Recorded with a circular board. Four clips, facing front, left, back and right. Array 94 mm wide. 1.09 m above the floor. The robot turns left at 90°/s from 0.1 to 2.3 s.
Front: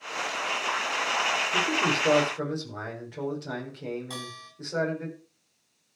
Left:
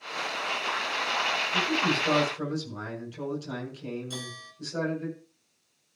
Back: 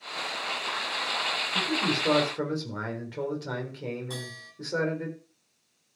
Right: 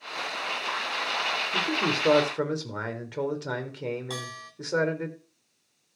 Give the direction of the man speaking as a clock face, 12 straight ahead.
1 o'clock.